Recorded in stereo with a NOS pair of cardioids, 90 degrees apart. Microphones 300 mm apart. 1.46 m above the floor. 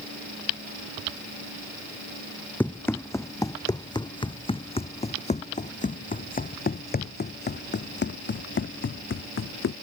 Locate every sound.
2.6 s running footsteps: 5° left; by 9.7 s 45° left